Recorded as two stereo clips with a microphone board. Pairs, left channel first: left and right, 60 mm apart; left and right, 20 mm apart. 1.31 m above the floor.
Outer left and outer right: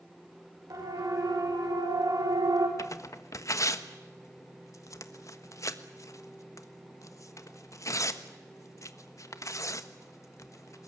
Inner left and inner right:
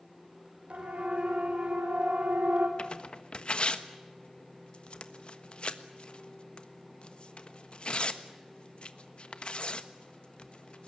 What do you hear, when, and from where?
0.7 s a siren: 80° right, 5.5 m; by 2.7 s 75° right (ahead or behind), 4 m
2.8 s tearing paper: 55° left (ahead or behind), 1.3 m